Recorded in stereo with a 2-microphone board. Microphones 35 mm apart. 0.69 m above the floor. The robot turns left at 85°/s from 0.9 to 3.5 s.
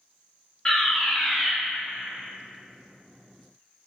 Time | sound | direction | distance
0.7 | a fire alarm | 50° left | 2.0 m